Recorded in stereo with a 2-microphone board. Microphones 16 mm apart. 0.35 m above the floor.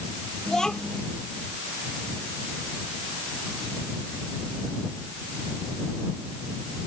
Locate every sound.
0.5 s a child speaking: 40° left (ahead or behind)